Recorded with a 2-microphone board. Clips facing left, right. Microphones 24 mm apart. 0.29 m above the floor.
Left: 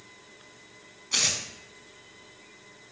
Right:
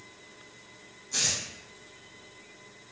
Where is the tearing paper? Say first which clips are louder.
Left 3 dB; 80° left, 0.6 m.